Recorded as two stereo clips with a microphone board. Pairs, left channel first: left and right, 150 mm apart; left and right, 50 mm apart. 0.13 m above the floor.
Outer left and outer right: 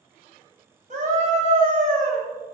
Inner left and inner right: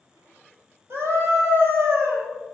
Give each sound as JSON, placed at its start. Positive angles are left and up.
{"t": 0.9, "sound": "a scream", "side_deg": -50, "distance_m": 3.5}